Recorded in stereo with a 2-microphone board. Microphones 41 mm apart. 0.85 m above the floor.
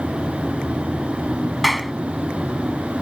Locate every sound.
1.6 s a clap: centre (ahead or behind)